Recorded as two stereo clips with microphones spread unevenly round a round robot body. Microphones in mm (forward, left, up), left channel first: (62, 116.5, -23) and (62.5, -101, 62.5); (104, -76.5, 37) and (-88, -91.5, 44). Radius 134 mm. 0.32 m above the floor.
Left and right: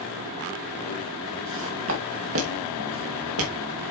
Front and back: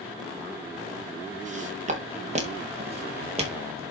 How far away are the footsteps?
About 3 m.